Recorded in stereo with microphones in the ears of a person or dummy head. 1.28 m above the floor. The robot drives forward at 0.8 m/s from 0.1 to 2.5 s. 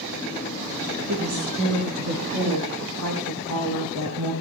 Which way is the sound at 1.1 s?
80° right.